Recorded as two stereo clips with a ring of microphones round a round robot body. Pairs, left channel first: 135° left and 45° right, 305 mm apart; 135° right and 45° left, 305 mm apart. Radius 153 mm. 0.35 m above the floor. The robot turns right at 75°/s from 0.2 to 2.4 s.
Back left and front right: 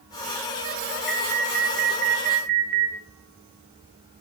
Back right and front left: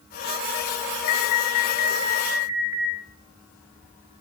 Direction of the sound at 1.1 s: 135° right.